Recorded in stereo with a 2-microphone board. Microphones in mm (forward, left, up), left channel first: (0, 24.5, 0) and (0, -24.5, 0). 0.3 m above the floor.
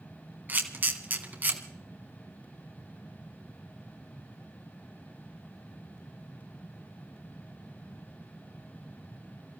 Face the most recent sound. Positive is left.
turn(degrees=-40)  # may be behind; listen again after turning